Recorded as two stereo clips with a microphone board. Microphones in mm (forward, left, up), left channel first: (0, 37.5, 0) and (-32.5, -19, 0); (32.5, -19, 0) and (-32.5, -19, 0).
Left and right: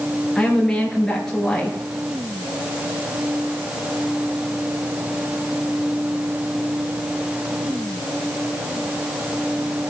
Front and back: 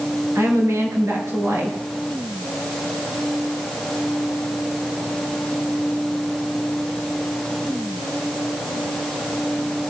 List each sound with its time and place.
0.3 s a woman speaking: 140° left, 4 m